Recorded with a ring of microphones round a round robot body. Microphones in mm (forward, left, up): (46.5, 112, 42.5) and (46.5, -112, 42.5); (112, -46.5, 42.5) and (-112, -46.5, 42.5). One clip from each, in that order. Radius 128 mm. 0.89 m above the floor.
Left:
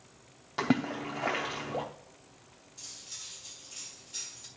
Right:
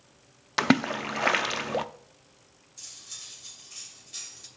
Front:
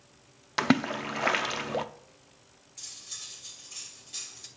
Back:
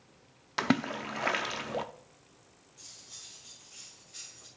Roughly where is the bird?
No bird in this recording.